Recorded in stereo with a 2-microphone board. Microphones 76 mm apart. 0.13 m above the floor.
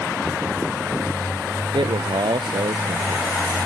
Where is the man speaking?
80° right.